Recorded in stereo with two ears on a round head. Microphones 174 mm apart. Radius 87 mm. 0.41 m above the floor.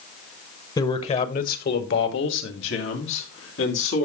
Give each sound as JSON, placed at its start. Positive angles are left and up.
{"t": 0.8, "sound": "a man speaking", "side_deg": 20, "distance_m": 1.3}